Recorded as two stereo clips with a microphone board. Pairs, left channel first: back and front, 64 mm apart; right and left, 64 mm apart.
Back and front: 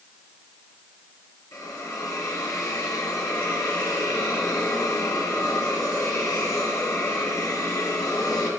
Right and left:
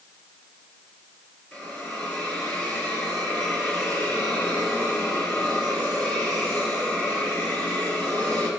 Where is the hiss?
160° right, 2.5 m.